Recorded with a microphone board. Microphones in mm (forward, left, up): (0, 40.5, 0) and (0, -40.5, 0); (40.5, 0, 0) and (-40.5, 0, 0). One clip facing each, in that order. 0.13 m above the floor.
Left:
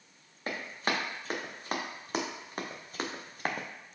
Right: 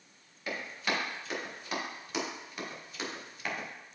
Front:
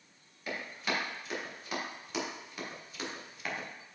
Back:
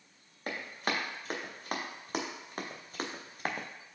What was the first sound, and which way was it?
Running footsteps, 140° left.